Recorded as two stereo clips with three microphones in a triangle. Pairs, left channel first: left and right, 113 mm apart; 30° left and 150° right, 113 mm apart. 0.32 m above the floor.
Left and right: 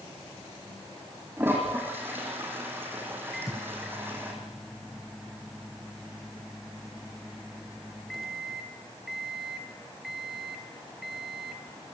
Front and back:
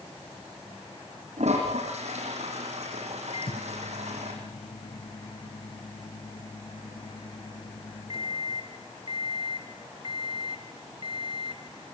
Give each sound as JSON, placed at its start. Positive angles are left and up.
{"t": 1.4, "sound": "a toilet flushing", "azimuth_deg": -160, "distance_m": 7.5}
{"t": 3.3, "sound": "a microwave", "azimuth_deg": 0, "distance_m": 1.4}